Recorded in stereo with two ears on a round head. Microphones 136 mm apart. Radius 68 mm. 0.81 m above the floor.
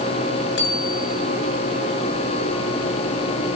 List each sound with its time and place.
0.6 s a bicycle bell: 85° left, 7.5 m